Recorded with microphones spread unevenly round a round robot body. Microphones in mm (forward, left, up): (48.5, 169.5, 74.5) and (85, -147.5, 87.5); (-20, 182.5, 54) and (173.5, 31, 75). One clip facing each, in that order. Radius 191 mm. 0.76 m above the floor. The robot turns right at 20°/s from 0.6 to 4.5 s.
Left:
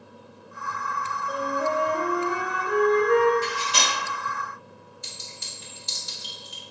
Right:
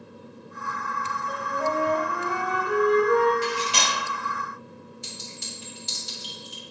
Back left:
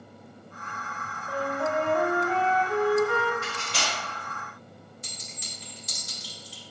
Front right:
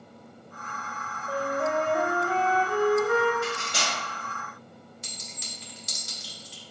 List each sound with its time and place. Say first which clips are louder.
1.3 s a flute: left 2 dB, front right 1 dB; 10° left, 0.7 m; by 3.3 s 55° left, 0.7 m
3.4 s cutlery clinking: right 2 dB, front right 4 dB; 125° right, 0.9 m; by 4.0 s 110° right, 0.9 m
5.0 s a clink: right 5 dB, even; 30° right, 1.2 m